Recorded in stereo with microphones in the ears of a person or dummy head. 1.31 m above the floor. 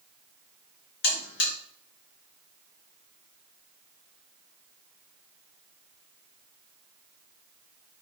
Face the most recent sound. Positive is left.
turn(degrees=65)  # may be behind; listen again after turning